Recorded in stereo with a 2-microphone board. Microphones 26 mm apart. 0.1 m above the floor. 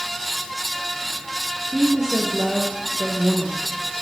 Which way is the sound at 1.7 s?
15° right (ahead or behind).